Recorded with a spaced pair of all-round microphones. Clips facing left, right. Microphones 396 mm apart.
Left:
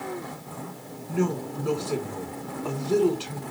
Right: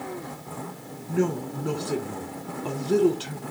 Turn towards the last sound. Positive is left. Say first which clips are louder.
# right 1 dB
turn(degrees=-30)  # may be behind; listen again after turning